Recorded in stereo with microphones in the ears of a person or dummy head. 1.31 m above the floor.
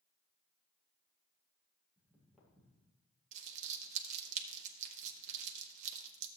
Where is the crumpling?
45° right (ahead or behind), 0.9 m.